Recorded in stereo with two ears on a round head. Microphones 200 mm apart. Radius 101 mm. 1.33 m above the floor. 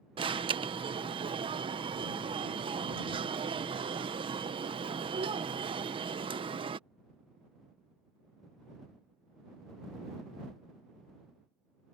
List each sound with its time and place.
0.2 s an alarm: 25° right (ahead or behind)